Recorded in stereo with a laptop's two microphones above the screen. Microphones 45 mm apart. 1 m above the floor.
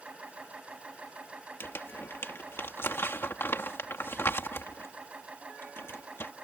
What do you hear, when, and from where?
0.0 s a machine running: 30° right (ahead or behind)
1.6 s crumpling: 60° left (ahead or behind)